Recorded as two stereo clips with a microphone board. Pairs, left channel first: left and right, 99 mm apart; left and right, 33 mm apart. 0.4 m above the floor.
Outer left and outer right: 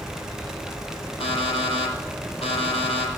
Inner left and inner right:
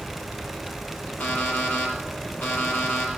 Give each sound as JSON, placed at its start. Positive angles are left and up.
{"t": 1.2, "sound": "an alarm clock", "side_deg": 75, "distance_m": 7.5}